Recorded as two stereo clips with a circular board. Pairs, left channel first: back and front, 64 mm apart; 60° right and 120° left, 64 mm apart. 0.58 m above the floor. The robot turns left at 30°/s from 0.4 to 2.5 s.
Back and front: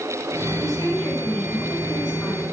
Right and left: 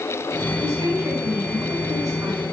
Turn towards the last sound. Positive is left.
turn(degrees=95)